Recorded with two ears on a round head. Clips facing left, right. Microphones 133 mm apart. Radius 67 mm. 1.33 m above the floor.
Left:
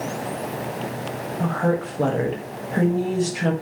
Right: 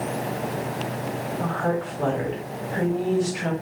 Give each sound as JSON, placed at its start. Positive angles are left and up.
{"t": 1.4, "sound": "a woman speaking", "side_deg": 45, "distance_m": 0.9}